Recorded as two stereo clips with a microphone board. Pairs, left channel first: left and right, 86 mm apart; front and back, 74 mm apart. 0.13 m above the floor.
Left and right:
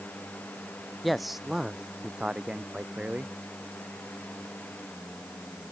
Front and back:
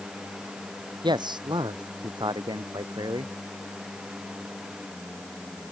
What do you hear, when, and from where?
1.0 s a man speaking: straight behind; by 3.3 s 160° right